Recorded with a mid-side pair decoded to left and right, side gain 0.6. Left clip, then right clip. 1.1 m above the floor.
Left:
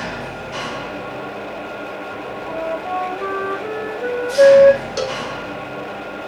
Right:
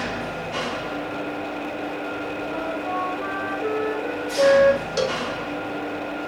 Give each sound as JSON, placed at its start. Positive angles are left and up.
{"t": 0.0, "sound": "an engine running", "azimuth_deg": 15, "distance_m": 3.5}
{"t": 2.5, "sound": "a flute", "azimuth_deg": 30, "distance_m": 6.5}
{"t": 5.0, "sound": "a cowbell", "azimuth_deg": 5, "distance_m": 0.7}